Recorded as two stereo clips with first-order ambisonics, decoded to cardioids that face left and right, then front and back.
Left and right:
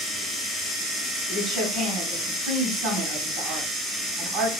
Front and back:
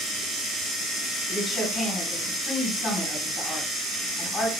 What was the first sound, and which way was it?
A woman speaking, 80° right.